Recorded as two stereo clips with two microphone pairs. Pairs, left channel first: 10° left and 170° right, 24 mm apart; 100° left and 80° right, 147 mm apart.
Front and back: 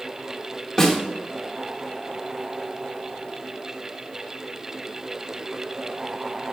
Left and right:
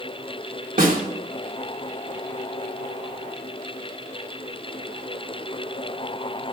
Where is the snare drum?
65° right, 3 m.